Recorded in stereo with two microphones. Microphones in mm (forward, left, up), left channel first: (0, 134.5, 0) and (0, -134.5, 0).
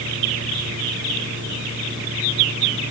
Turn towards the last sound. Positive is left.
No sound to turn to.